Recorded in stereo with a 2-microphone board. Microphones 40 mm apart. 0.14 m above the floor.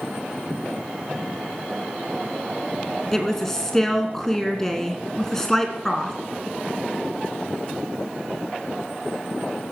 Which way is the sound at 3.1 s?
10° left (ahead or behind).